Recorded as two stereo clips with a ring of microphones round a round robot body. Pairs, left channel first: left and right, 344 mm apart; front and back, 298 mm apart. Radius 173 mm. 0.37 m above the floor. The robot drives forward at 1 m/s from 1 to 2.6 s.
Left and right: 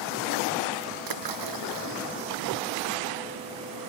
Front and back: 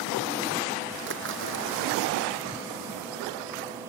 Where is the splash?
120° right; by 2.0 s 125° right.